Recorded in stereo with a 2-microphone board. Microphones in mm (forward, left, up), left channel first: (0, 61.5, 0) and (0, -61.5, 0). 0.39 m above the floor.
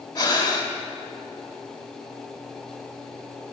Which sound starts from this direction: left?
Breathing, at 0.1 s.